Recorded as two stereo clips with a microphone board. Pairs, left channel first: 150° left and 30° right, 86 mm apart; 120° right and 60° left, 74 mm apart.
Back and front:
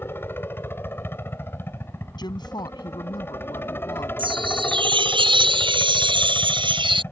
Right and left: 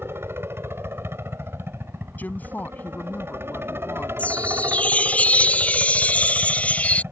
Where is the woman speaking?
175° left.